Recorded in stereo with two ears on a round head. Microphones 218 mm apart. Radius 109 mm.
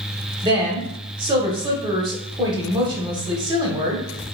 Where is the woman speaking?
20° right (ahead or behind), 1.1 m.